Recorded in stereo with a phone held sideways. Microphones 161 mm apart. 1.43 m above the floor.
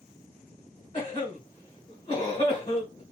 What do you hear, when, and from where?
0.9 s a cough: 35° left (ahead or behind), 1.4 m